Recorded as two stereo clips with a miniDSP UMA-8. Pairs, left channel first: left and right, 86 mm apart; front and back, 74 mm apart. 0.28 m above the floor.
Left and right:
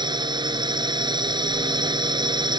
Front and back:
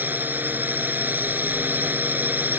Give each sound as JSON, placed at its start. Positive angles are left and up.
{"t": 0.0, "sound": "a drone", "azimuth_deg": -115}